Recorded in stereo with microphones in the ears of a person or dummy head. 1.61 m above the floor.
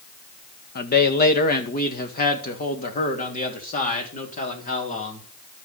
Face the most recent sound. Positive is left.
turn(degrees=40)  # may be behind; listen again after turning